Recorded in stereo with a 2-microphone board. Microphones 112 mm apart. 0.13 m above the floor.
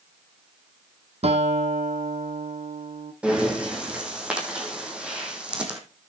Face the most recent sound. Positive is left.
turn(degrees=-10)  # may be behind; listen again after turning